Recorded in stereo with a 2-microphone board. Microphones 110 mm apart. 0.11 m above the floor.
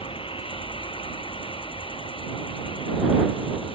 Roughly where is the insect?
Left.